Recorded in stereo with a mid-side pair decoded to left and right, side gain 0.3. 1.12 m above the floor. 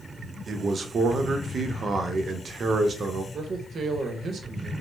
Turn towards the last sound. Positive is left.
turn(degrees=-65)